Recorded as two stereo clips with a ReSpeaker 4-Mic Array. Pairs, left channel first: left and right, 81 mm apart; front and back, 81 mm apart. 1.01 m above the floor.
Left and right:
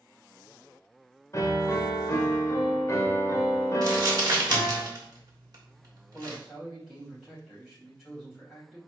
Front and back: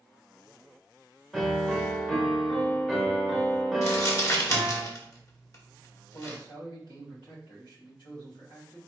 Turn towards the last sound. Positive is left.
turn(degrees=10)